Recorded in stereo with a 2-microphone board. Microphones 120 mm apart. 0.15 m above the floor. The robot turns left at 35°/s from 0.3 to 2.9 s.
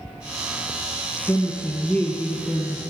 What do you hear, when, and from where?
1.3 s a woman speaking: 25° left (ahead or behind), 1.1 m; by 2.8 s 5° left (ahead or behind), 1.1 m